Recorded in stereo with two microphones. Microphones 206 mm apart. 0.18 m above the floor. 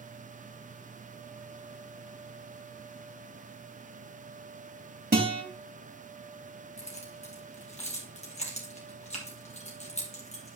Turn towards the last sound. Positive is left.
turn(degrees=35)  # may be behind; listen again after turning